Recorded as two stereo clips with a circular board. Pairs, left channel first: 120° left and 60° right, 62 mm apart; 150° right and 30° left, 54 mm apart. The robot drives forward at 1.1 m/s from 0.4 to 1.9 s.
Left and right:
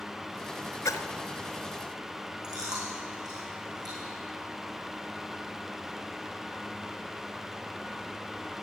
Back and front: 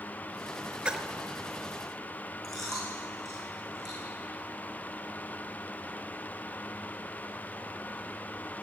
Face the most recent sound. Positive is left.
turn(degrees=-65)